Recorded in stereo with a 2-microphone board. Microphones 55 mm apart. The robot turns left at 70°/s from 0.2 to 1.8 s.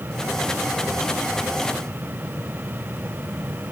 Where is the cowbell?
No cowbell in this recording.